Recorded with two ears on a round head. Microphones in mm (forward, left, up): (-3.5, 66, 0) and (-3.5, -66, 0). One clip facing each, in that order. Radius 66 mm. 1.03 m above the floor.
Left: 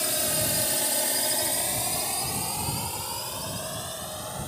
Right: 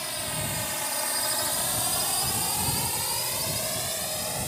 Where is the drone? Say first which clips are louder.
Left 5 dB; 60° left (ahead or behind); by 4.5 s 20° right (ahead or behind).